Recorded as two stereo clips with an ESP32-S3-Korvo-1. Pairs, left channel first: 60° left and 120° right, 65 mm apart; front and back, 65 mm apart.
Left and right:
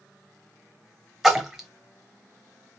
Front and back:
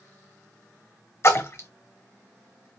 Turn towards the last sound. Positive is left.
turn(degrees=-35)